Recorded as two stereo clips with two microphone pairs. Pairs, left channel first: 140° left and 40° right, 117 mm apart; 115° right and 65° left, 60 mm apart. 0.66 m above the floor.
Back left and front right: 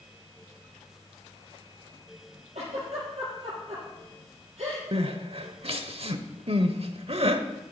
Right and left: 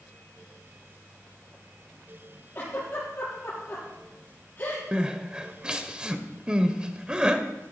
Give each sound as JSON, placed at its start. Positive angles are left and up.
{"t": 2.5, "sound": "a giggle", "azimuth_deg": -60, "distance_m": 7.0}
{"t": 4.9, "sound": "crying", "azimuth_deg": -10, "distance_m": 0.9}